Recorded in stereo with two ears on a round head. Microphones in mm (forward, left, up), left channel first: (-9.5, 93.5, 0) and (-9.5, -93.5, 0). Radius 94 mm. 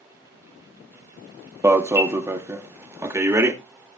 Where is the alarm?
10° right (ahead or behind), 0.7 m.